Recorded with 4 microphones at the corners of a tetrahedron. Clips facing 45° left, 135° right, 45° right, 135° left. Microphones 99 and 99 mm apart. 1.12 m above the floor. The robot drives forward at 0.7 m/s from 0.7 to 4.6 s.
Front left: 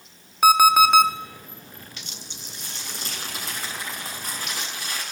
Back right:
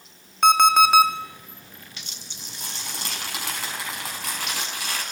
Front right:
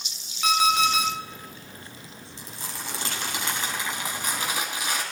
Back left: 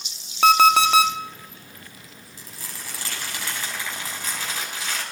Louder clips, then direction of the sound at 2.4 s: Back right 4 dB, front right 3 dB; 110° right.